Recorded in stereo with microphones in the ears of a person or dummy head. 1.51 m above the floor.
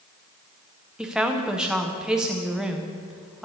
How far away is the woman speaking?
About 0.7 m.